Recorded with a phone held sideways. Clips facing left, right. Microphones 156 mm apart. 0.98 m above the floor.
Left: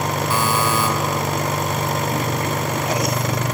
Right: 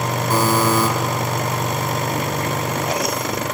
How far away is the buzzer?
About 1.8 m.